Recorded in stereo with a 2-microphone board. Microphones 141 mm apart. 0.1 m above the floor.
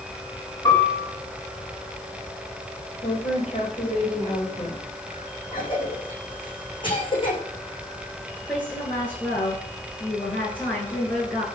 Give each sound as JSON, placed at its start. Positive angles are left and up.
{"t": 0.7, "sound": "a piano", "side_deg": 25, "distance_m": 6.0}
{"t": 3.0, "sound": "a woman speaking", "side_deg": 40, "distance_m": 8.0}
{"t": 5.5, "sound": "a cough", "side_deg": 35, "distance_m": 6.0}
{"t": 8.5, "sound": "a woman speaking", "side_deg": 15, "distance_m": 9.0}